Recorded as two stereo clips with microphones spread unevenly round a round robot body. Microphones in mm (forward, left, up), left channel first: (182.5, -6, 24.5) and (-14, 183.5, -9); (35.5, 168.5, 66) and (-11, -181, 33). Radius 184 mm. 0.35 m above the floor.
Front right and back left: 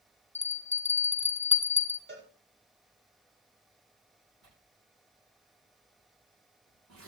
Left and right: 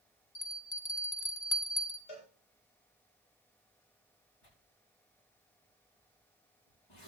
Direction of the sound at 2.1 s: 85° left.